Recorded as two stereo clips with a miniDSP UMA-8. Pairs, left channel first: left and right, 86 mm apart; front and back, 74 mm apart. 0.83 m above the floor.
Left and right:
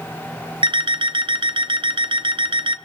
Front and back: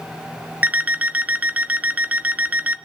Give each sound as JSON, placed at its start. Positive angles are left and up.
{"t": 0.6, "sound": "an alarm clock", "azimuth_deg": -110, "distance_m": 0.5}